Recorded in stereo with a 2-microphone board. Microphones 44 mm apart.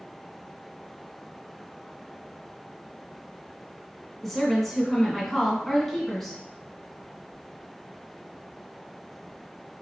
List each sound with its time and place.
4.2 s a woman speaking: 5° left (ahead or behind), 1.8 m